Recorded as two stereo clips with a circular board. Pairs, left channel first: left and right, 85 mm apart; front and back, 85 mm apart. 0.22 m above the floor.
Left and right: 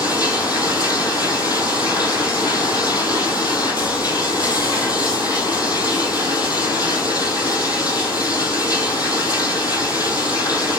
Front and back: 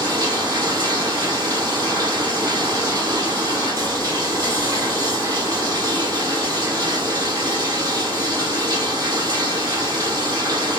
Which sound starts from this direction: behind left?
Running water, at 0.0 s.